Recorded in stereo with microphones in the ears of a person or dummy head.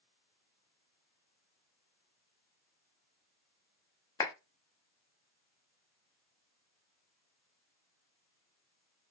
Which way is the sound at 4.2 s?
15° left (ahead or behind).